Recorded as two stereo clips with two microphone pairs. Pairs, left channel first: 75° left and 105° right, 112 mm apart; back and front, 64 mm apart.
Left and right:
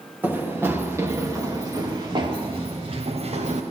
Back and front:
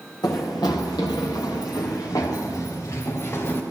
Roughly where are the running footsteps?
Behind.